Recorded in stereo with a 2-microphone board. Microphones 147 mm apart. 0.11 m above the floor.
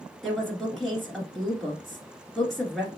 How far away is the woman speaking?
About 1.5 m.